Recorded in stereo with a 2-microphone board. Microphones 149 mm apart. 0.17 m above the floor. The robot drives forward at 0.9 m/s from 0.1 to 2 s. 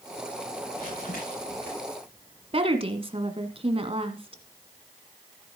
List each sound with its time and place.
0.7 s crumpling: 80° left, 10 m; by 1.7 s 85° left, 10 m
2.5 s a woman speaking: 40° right (ahead or behind), 1.5 m